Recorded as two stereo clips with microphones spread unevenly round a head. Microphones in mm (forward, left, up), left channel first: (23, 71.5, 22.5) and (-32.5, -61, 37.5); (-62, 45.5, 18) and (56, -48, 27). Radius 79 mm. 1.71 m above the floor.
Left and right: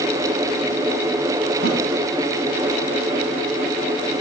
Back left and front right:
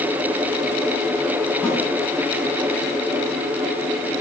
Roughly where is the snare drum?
Behind right.